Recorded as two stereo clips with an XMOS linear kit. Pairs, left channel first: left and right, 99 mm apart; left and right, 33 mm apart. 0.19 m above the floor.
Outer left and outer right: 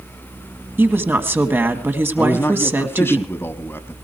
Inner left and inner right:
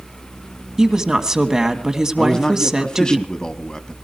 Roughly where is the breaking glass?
No breaking glass in this recording.